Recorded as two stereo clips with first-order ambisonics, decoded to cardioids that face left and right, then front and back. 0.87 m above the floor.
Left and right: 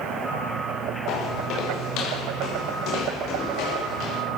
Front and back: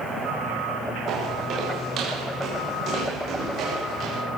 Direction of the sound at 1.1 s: 130° left.